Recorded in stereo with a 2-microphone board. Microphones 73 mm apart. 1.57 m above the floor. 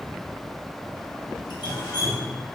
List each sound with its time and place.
1.5 s dripping: 75° left (ahead or behind), 1.3 m